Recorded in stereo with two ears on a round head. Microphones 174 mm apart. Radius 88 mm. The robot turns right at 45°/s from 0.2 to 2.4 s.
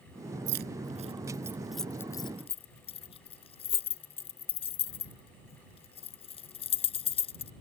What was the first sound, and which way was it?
Keys jangling, 60° right (ahead or behind).